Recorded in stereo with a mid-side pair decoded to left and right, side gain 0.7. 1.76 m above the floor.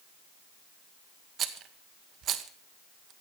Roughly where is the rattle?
Ahead right.